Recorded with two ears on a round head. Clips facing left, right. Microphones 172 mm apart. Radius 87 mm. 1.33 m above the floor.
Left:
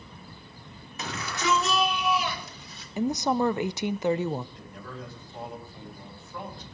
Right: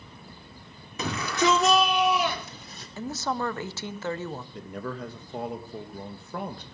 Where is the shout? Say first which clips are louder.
Right 6 dB; 75° right (ahead or behind), 3.5 m; by 2.9 s 40° right (ahead or behind), 4 m.